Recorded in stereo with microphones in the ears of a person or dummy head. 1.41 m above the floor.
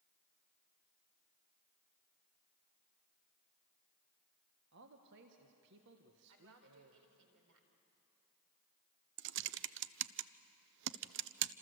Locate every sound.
4.7 s a man speaking: 60° right (ahead or behind), 1.5 m
6.3 s a woman speaking: 80° right, 4 m
9.2 s typing on a keyboard: 60° right (ahead or behind), 0.7 m